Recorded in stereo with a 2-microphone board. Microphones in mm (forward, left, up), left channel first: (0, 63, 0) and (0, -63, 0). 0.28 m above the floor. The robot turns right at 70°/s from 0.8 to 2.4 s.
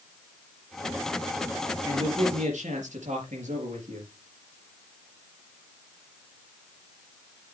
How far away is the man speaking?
About 4.5 m.